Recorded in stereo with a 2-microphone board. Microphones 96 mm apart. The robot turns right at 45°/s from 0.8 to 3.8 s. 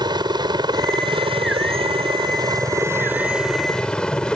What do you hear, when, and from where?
0.0 s a helicopter: 125° right; by 4.4 s 10° left